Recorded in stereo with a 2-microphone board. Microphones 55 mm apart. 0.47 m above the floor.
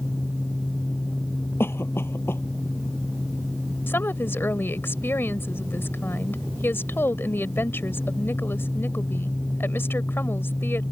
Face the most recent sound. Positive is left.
turn(degrees=45)  # may be behind; listen again after turning